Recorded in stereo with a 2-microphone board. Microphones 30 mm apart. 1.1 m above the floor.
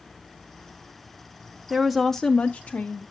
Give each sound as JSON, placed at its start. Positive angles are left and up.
{"t": 1.7, "sound": "a woman speaking", "side_deg": -15, "distance_m": 0.7}